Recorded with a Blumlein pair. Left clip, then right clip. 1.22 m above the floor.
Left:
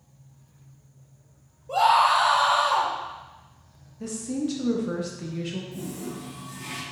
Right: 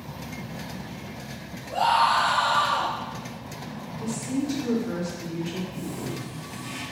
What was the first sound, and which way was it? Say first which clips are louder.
A scream: left 2 dB; 35° left.